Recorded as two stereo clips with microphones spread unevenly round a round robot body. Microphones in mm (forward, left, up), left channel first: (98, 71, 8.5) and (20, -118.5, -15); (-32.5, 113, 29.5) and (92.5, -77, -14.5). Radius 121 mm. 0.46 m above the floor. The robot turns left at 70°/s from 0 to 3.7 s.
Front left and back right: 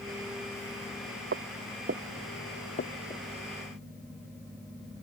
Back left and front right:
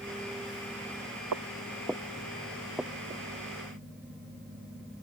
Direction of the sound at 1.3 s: 75° right.